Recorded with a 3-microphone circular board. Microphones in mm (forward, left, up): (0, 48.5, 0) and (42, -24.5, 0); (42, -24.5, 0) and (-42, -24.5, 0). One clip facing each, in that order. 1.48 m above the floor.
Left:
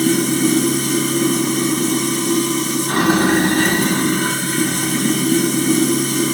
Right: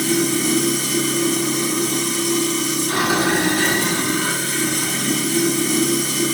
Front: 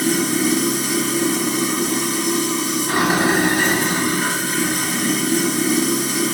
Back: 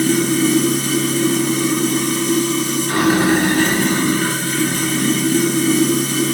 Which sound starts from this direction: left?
Running water, at 0.0 s.